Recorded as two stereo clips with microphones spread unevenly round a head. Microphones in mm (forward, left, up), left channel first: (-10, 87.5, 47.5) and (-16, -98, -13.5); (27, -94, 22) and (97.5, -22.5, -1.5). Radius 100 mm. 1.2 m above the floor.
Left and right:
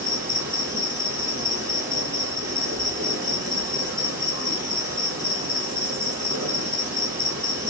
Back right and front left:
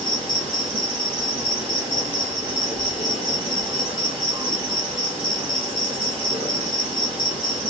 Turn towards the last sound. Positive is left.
turn(degrees=15)